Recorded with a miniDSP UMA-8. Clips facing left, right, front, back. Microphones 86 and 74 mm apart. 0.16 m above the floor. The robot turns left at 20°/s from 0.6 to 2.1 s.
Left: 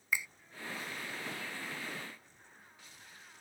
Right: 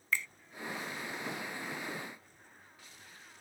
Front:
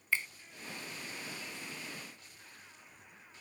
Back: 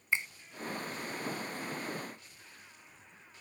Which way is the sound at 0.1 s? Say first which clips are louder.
Right 1 dB, back 1 dB; 150° left.